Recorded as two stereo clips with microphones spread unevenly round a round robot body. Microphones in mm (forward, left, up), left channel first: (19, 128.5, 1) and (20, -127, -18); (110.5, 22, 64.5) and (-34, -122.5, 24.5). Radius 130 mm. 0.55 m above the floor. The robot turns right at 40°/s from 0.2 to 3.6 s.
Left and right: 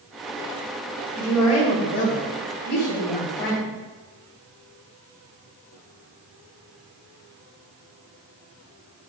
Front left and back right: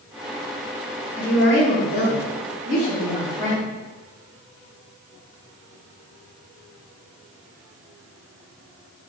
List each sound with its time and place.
1.2 s a woman speaking: straight ahead, 2.5 m; by 3.8 s 100° left, 2.5 m